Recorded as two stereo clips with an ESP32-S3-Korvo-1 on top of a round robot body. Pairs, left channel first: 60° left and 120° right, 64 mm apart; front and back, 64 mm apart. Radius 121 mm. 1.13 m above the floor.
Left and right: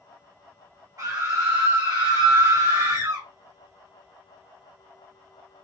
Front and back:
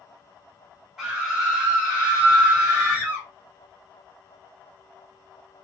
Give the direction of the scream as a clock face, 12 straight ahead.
3 o'clock.